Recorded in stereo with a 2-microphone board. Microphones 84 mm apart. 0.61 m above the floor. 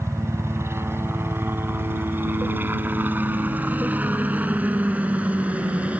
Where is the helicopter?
35° right (ahead or behind); by 6.0 s 15° right (ahead or behind).